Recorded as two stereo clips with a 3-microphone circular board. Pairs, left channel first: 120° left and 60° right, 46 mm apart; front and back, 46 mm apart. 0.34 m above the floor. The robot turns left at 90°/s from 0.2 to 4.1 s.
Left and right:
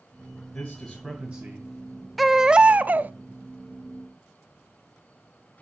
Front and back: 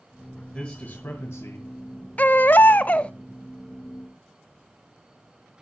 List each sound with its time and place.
0.5 s a man speaking: 70° left, 2.5 m; by 2.1 s 75° right, 2.5 m
2.2 s a baby crying: 30° left, 0.6 m; by 3.1 s 55° right, 0.6 m